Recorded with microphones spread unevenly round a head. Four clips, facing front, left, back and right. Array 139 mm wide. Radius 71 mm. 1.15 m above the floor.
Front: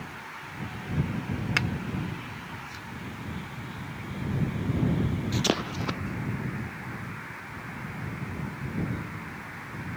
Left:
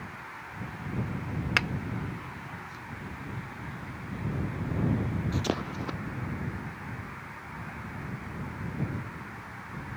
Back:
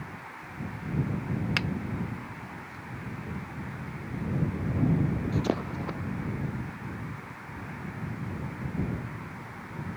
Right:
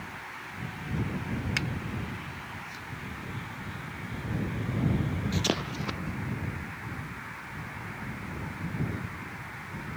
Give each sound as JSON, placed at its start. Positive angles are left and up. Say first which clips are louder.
{"t": 1.6, "sound": "a finger snap", "louder": "left 9 dB, front 6 dB", "azimuth_deg": 75}